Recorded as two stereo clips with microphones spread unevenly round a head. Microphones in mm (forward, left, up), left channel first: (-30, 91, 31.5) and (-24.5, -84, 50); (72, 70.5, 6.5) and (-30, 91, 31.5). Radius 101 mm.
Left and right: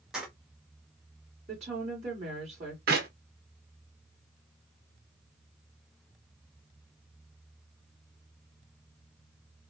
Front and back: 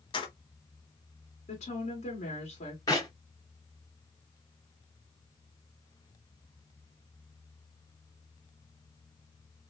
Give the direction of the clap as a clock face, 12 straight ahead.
3 o'clock.